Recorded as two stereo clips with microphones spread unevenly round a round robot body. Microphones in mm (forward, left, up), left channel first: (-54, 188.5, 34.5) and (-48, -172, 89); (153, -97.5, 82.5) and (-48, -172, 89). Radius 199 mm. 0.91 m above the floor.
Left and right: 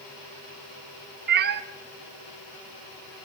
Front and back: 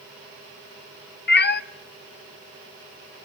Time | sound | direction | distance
1.3 | a cat meowing | 25° right | 0.7 m